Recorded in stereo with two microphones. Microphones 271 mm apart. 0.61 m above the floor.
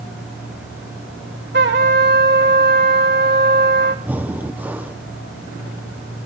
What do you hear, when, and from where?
1.5 s a trumpet: 40° right (ahead or behind), 1.9 m
4.0 s breathing: 5° right (ahead or behind), 0.9 m